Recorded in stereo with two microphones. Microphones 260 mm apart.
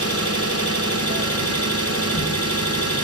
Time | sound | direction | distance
0.0 | an engine running | 60° left (ahead or behind) | 4.5 m